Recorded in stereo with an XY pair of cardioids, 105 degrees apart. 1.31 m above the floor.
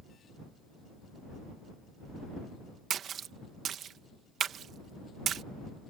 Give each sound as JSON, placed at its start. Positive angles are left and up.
{"t": 2.9, "sound": "a splash", "azimuth_deg": -60}